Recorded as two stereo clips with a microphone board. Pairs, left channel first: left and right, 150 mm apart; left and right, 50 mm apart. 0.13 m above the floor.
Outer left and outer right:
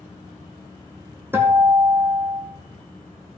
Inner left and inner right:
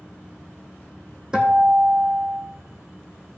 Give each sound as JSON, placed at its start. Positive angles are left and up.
{"t": 1.3, "sound": "a guitar", "side_deg": -15, "distance_m": 1.7}